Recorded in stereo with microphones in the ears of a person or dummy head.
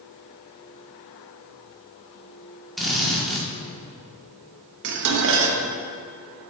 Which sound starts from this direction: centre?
A drill, at 2.8 s.